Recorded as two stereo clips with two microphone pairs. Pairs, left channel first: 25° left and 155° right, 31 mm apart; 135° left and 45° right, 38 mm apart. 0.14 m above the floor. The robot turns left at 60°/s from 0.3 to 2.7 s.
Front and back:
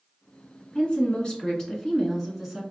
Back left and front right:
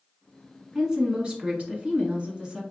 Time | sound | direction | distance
0.8 | a woman speaking | 25° left | 1.2 m